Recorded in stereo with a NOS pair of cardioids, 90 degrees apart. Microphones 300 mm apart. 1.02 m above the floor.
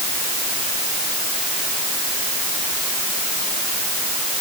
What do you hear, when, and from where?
Only background noise.